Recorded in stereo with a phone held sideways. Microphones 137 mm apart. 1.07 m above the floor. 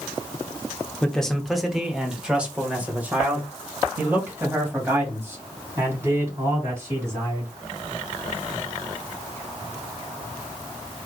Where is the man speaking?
10° left (ahead or behind), 1.0 m; by 7.5 s 20° right (ahead or behind), 4 m.